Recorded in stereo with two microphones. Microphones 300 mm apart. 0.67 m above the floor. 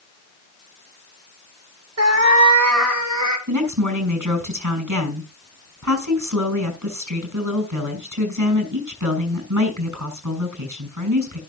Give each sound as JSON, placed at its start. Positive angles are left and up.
{"t": 2.0, "sound": "a cat meowing", "side_deg": -50, "distance_m": 0.7}
{"t": 3.5, "sound": "a woman speaking", "side_deg": -80, "distance_m": 6.0}